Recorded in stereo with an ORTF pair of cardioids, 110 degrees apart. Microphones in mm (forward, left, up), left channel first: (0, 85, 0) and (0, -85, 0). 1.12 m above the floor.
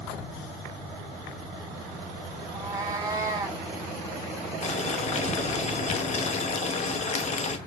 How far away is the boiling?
About 0.8 m.